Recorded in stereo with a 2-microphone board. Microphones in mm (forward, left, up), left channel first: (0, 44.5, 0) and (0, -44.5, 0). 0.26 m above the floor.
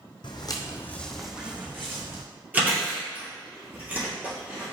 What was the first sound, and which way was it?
Footsteps, 60° left (ahead or behind).